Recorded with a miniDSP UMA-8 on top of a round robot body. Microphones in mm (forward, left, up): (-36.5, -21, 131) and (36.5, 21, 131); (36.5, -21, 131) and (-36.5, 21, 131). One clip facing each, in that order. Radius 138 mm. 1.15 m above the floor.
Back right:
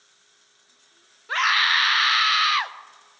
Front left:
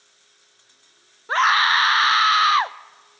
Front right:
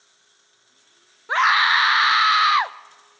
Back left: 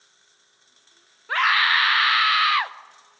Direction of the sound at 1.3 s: 20° left.